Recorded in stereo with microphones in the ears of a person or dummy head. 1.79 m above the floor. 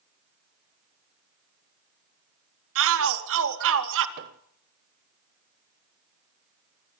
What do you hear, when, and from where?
2.8 s a shout: 70° right (ahead or behind), 3.5 m
4.2 s a microwave: 35° right (ahead or behind), 0.6 m